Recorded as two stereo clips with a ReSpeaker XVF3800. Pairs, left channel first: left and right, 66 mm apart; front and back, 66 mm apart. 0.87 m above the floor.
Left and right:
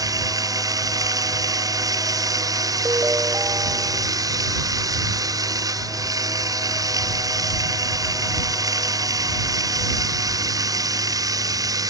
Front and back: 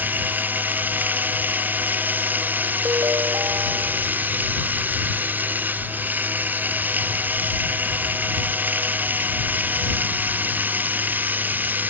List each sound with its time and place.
0.0 s running water: 115° right
2.9 s a ringtone: 140° right